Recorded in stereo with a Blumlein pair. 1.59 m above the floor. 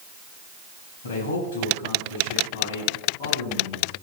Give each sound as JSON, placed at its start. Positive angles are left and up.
{"t": 1.0, "sound": "a man speaking", "azimuth_deg": 60, "distance_m": 8.5}